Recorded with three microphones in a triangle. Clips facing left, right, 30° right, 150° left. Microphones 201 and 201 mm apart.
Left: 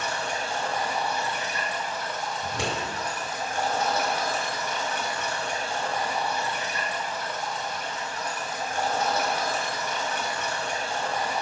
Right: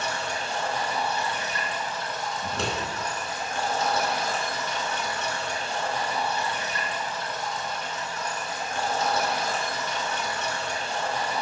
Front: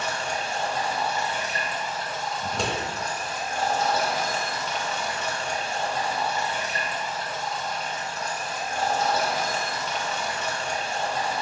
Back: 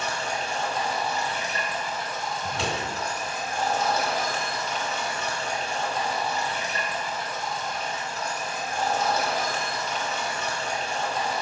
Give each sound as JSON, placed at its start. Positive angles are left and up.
{"t": 0.0, "sound": "running water", "azimuth_deg": 20, "distance_m": 1.1}
{"t": 2.4, "sound": "scissors", "azimuth_deg": 15, "distance_m": 1.0}